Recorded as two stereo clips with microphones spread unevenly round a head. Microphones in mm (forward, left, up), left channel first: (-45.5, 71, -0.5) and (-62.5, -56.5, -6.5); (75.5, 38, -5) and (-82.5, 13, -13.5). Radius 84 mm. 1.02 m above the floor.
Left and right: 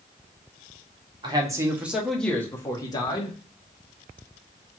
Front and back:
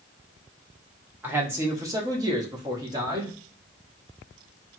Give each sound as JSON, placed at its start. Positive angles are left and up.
{"t": 1.2, "sound": "a man speaking", "azimuth_deg": -105, "distance_m": 0.8}